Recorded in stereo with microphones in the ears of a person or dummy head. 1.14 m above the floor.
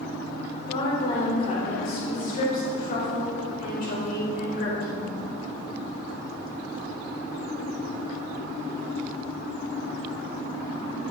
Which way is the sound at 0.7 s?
40° left (ahead or behind).